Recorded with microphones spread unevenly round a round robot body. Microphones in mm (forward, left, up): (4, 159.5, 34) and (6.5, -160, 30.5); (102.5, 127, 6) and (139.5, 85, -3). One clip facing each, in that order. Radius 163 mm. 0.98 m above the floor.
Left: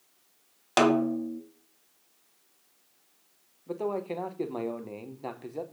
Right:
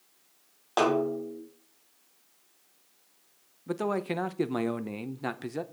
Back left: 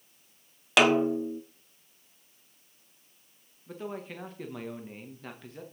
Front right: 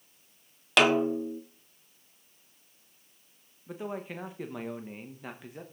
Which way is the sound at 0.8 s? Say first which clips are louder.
Left 3 dB, back left 1 dB; 45° left.